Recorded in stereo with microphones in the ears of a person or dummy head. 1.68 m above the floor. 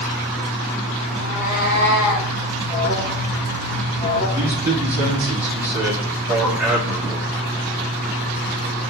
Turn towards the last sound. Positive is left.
turn(degrees=-5)  # may be behind; listen again after turning